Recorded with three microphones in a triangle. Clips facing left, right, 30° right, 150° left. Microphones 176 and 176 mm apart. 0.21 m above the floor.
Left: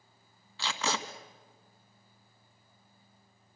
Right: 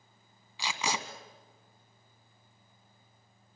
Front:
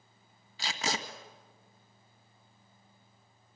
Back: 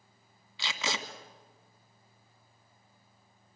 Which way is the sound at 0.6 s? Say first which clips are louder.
Left 1 dB, front 1 dB; 20° right.